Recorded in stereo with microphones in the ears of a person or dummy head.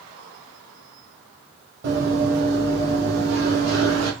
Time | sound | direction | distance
1.8 | running footsteps | 50° right (ahead or behind) | 2 m